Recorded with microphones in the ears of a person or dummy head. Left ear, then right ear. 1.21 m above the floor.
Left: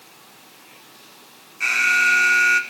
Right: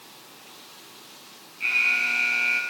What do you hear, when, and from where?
1.6 s an alarm: 60° left (ahead or behind), 2 m